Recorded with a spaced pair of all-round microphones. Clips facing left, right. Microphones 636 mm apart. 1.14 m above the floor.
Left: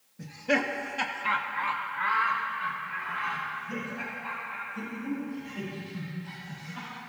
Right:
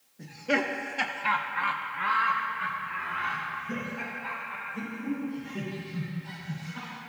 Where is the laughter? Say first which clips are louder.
Even; 35° left (ahead or behind), 1.1 m; by 6.9 s 85° right, 5 m.